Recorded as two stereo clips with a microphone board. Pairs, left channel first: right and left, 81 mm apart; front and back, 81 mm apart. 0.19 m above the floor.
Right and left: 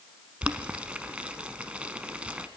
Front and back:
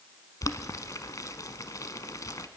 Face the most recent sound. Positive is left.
turn(degrees=20)